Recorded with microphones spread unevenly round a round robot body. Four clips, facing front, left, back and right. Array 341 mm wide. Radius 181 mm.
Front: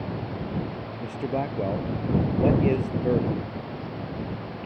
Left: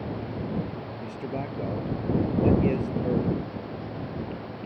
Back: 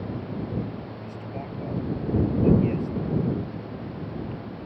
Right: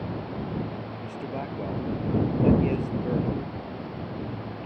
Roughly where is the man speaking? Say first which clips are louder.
Left 2 dB, front 8 dB; ahead.